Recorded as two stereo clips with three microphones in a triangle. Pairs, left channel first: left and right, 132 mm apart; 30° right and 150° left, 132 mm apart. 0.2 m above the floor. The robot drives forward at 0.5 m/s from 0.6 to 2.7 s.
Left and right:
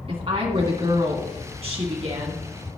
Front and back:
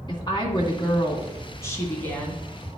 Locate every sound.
0.1 s a woman speaking: 70° right, 2.0 m; by 2.4 s 105° right, 1.9 m